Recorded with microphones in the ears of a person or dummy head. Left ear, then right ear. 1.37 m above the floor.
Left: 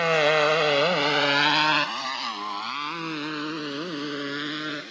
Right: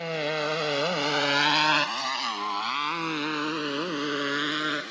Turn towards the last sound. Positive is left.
turn(degrees=-35)  # may be behind; listen again after turning